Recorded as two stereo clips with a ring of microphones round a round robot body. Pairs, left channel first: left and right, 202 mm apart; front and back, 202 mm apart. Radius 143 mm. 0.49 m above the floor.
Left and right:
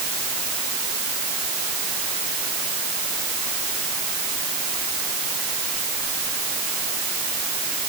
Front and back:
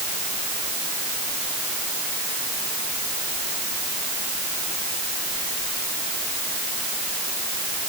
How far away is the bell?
No bell in this recording.